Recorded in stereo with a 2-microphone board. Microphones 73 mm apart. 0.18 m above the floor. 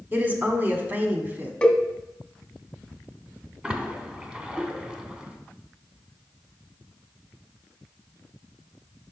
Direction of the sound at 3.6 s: 15° right (ahead or behind).